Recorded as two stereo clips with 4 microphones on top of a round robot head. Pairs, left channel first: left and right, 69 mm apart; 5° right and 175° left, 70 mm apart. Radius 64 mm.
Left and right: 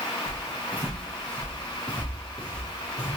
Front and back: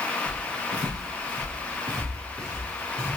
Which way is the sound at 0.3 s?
160° left.